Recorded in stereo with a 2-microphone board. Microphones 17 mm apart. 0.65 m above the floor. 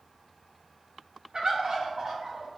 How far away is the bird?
About 0.7 m.